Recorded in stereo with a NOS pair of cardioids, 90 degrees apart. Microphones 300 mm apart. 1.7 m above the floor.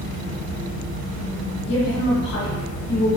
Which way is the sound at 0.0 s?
40° left.